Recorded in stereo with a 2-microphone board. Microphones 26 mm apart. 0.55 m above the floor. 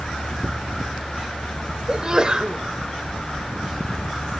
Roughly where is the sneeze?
Right.